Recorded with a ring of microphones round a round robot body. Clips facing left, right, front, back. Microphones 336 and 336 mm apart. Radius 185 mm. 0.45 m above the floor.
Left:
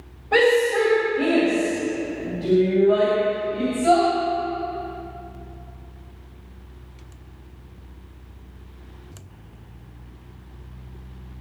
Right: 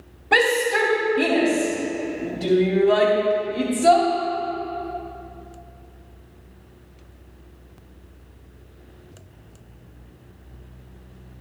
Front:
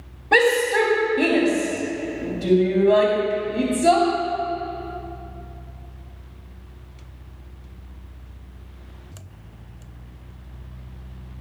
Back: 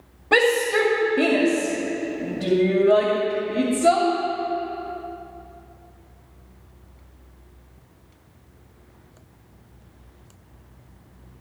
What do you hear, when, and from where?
0.3 s a shout: 130° right, 2.5 m